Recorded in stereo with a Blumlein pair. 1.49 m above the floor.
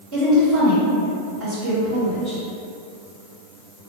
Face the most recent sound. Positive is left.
turn(degrees=-35)